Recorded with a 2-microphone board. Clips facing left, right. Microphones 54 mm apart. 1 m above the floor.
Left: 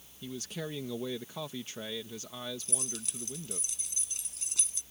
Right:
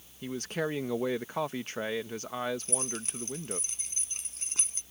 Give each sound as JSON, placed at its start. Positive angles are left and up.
{"t": 0.2, "sound": "a man speaking", "side_deg": -50}
{"t": 2.6, "sound": "keys jangling", "side_deg": -40}